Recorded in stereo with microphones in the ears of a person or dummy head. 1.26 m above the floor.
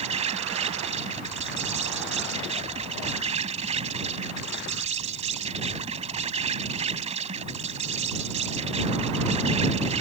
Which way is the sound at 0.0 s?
30° right (ahead or behind).